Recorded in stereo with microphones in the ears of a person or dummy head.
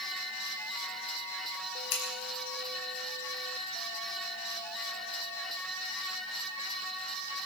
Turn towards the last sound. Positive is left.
turn(degrees=65)  # may be behind; listen again after turning